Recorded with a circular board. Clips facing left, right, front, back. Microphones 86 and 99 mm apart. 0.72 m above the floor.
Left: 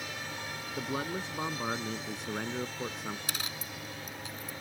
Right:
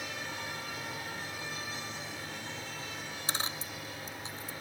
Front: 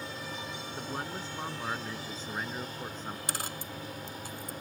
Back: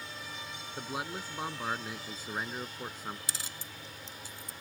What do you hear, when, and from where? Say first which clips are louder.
0.8 s a man speaking: left 6 dB, back 1 dB; 100° left
3.3 s a dropped coin: right 2 dB, front 7 dB; 35° right